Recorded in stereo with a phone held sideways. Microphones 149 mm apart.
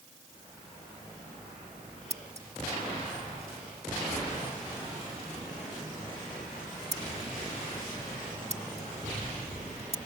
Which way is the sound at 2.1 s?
45° right (ahead or behind).